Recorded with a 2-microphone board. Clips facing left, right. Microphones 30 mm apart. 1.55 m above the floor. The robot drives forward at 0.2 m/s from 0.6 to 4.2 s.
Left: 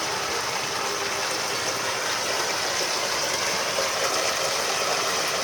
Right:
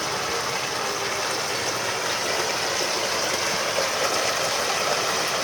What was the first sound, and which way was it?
Running water, 5° right (ahead or behind).